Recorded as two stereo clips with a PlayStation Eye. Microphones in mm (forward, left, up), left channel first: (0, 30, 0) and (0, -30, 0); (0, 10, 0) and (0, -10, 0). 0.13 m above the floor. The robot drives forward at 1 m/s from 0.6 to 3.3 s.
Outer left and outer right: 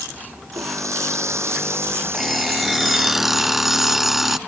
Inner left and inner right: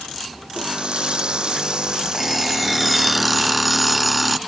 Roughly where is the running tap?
Right.